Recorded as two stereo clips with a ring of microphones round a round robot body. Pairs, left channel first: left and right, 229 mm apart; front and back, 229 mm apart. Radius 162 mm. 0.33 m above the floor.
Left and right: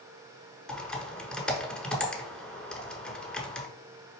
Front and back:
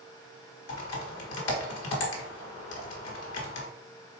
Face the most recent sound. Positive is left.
turn(degrees=5)